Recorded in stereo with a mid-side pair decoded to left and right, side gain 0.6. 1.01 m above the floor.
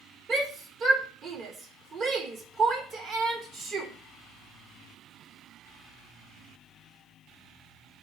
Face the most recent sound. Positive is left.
turn(degrees=-50)